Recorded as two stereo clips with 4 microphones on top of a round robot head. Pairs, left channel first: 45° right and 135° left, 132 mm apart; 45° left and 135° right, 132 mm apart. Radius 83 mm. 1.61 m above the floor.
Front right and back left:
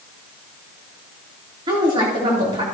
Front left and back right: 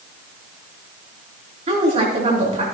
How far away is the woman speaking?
About 3.5 m.